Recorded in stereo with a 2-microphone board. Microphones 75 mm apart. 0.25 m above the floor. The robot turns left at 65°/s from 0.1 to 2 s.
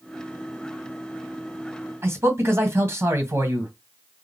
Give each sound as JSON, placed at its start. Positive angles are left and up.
{"t": 2.0, "sound": "a man speaking", "side_deg": -35, "distance_m": 1.7}